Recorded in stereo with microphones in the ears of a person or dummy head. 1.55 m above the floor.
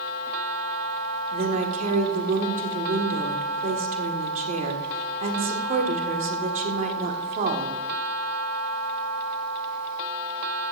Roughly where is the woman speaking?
Right.